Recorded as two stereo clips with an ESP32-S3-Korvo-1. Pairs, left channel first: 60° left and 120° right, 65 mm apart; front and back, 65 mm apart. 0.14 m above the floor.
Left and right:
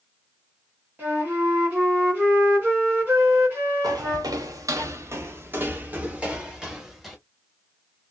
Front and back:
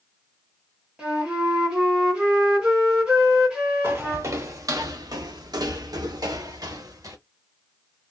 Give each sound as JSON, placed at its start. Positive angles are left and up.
{"t": 1.0, "sound": "a flute", "azimuth_deg": -125, "distance_m": 1.8}
{"t": 3.8, "sound": "footsteps", "azimuth_deg": -125, "distance_m": 1.1}